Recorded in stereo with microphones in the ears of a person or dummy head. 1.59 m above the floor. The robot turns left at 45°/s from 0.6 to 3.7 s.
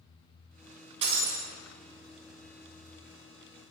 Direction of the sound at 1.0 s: 30° right (ahead or behind).